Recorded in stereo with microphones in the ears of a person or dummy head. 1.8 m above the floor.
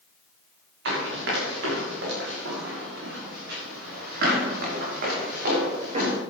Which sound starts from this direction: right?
Running footsteps, at 0.8 s.